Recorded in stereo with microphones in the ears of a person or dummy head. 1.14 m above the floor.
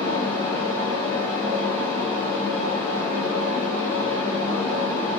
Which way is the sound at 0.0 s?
85° right.